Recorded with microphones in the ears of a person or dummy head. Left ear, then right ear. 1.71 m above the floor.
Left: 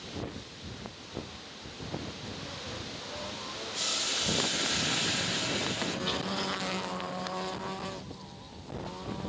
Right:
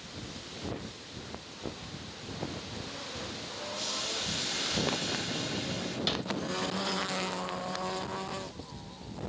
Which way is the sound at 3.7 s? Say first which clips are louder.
Left 4 dB; 40° left (ahead or behind).